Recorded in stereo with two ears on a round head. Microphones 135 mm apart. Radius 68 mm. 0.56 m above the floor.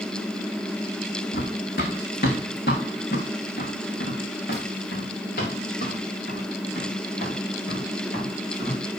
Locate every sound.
1.3 s running footsteps: 70° left (ahead or behind), 2.5 m; by 8.8 s 55° left (ahead or behind), 7.5 m